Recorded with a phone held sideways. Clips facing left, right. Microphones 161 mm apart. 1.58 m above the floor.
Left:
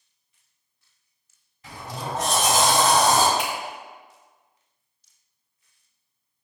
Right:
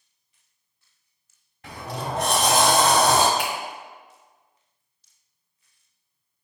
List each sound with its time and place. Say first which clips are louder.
1.6 s a sliding door: right 2 dB; 55° right (ahead or behind), 0.5 m
3.4 s a finger snap: even; 10° left (ahead or behind), 1.2 m